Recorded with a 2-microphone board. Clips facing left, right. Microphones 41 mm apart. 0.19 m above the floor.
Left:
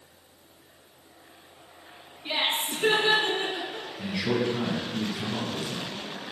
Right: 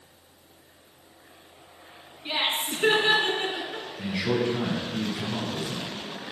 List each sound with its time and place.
2.2 s laughter: 10° right (ahead or behind), 2 m; by 3.9 s 35° right (ahead or behind), 2.5 m
4.0 s a man speaking: 10° right (ahead or behind), 1.7 m